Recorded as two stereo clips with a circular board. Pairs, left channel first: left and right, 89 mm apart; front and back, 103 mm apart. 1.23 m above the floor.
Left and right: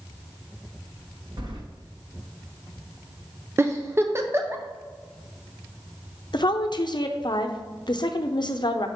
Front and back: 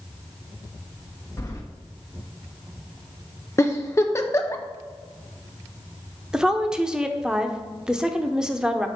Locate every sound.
1.4 s keys jangling: 60° right, 1.3 m
3.6 s a giggle: 45° right, 0.7 m
6.3 s a woman speaking: 100° left, 0.7 m